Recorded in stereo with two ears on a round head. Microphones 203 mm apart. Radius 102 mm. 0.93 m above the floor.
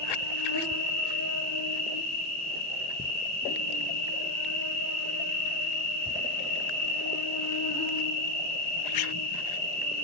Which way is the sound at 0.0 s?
85° left.